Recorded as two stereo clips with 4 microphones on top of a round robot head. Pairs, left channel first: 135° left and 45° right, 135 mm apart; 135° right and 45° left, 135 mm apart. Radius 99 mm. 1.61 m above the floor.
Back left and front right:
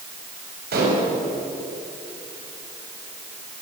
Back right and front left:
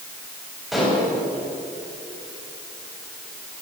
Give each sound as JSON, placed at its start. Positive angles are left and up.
{"t": 0.7, "sound": "dishes clattering", "azimuth_deg": -45, "distance_m": 7.5}